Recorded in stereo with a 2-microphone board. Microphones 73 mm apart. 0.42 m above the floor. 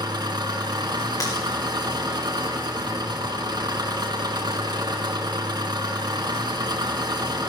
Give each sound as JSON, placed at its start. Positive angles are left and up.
{"t": 0.0, "sound": "an engine running", "side_deg": -80, "distance_m": 2.0}
{"t": 1.2, "sound": "breaking glass", "side_deg": 55, "distance_m": 6.0}